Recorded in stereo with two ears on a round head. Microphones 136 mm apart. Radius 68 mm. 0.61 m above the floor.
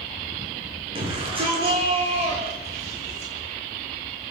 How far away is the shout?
About 9 m.